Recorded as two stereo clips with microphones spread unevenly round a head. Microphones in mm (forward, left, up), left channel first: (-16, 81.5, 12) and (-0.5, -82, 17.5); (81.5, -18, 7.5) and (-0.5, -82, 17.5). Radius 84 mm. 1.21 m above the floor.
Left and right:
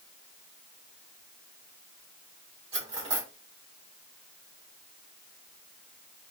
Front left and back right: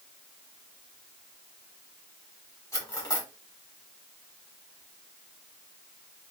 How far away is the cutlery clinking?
About 1.8 m.